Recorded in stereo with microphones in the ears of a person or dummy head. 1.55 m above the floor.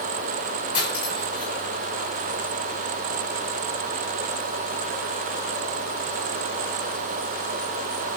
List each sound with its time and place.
0.7 s cutlery clinking: 25° left (ahead or behind), 4 m